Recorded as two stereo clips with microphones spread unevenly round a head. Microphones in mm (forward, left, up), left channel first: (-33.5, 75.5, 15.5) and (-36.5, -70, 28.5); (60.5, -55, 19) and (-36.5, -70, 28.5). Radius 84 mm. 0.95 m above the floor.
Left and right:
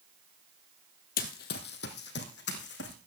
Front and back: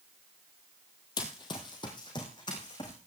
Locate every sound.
1.2 s running footsteps: 70° left, 1.4 m; by 3.0 s 75° left, 3 m